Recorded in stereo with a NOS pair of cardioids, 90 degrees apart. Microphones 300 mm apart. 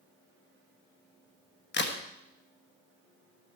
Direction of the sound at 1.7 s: 40° left.